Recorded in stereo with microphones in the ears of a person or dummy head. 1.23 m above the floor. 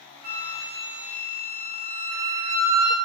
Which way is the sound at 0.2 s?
35° right (ahead or behind).